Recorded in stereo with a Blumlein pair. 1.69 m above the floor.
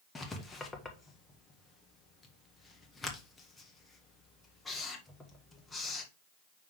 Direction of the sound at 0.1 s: 10° left.